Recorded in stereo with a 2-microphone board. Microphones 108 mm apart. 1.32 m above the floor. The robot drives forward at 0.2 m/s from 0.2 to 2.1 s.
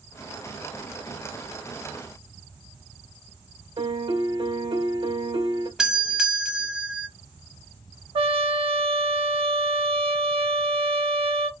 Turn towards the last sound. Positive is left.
turn(degrees=-50)  # may be behind; listen again after turning